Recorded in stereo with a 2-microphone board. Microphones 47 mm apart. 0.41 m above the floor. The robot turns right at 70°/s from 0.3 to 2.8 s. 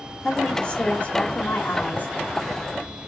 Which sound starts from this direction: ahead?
A woman speaking, at 0.2 s.